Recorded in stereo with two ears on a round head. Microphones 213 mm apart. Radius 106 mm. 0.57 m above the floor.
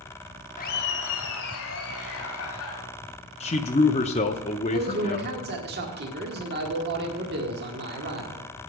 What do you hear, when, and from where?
0.6 s laughter: 35° left (ahead or behind), 1.0 m; by 2.8 s 65° left (ahead or behind), 4 m
3.4 s a man speaking: 30° left (ahead or behind), 0.6 m
4.7 s a man speaking: 45° right (ahead or behind), 1.6 m